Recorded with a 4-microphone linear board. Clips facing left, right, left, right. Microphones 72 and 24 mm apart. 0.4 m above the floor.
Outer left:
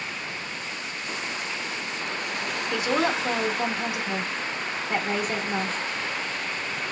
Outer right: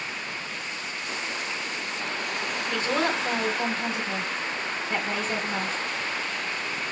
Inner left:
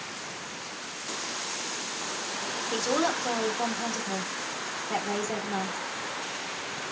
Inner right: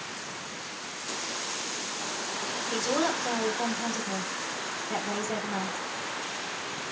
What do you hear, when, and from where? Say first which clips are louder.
2.7 s a woman speaking: outer left 2 dB, inner left 1 dB; 15° left (ahead or behind), 0.8 m